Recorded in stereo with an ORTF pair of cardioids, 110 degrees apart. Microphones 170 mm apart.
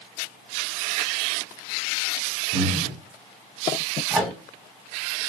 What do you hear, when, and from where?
2.5 s breathing: 50° right, 0.8 m
4.1 s a microwave: 5° right, 1.6 m